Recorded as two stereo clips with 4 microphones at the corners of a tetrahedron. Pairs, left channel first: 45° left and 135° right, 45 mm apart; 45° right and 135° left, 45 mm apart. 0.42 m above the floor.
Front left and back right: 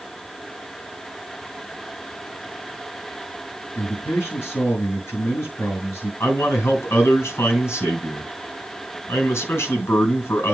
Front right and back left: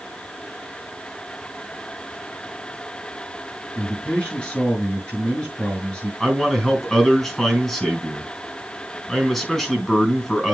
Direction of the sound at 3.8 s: 25° left.